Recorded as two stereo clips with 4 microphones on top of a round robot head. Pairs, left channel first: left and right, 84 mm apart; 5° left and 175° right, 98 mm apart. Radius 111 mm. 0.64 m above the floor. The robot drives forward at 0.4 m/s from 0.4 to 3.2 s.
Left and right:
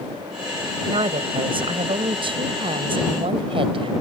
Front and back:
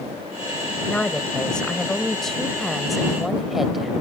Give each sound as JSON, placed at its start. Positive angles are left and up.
{"t": 0.9, "sound": "a woman speaking", "azimuth_deg": -75}